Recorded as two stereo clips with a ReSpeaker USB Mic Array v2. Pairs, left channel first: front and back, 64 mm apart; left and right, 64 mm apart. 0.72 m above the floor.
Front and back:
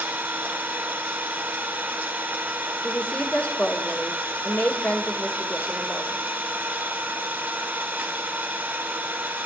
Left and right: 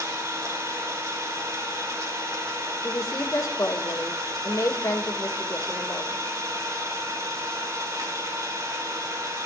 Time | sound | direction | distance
0.0 | an engine running | 120° right | 1.8 m
2.8 | a woman speaking | 70° left | 2 m